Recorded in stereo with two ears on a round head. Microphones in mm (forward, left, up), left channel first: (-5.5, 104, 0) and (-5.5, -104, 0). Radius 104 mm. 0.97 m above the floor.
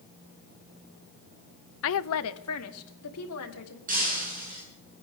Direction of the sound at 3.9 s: 40° right (ahead or behind).